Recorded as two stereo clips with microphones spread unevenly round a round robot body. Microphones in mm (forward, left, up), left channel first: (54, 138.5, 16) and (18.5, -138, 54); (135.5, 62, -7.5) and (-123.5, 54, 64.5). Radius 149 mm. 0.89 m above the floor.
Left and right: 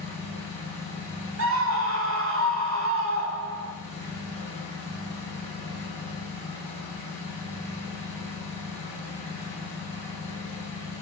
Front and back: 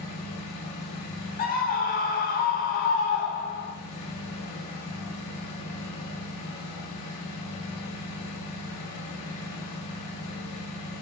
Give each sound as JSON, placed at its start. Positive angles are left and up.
{"t": 0.0, "sound": "an engine running", "azimuth_deg": 0, "distance_m": 5.0}
{"t": 1.4, "sound": "a scream", "azimuth_deg": -55, "distance_m": 2.5}